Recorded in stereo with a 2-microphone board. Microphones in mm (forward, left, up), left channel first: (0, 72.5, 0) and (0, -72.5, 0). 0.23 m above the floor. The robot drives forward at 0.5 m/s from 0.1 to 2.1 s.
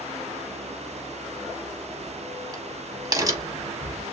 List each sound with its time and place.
1.6 s a crack: 30° right (ahead or behind), 0.6 m